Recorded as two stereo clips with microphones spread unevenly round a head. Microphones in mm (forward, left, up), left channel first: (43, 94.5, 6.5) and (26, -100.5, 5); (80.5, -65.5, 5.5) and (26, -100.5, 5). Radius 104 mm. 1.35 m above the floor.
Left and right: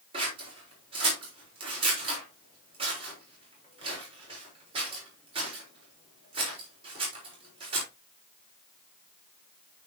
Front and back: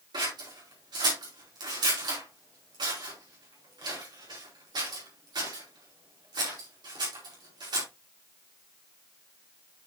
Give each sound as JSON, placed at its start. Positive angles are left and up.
{"t": 0.1, "sound": "scissors", "azimuth_deg": -160, "distance_m": 4.5}